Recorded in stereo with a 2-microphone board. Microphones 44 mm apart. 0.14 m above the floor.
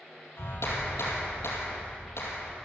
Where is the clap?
70° left (ahead or behind), 4 m.